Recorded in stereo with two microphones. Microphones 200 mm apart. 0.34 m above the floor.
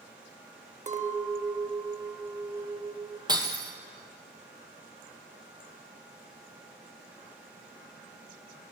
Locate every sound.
0.9 s a clink: 35° right (ahead or behind), 0.6 m
3.3 s breaking glass: 20° right (ahead or behind), 1.3 m